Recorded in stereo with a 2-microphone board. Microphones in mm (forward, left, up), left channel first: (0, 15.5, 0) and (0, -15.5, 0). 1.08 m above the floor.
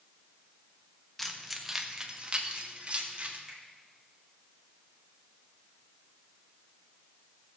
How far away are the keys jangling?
About 1.0 m.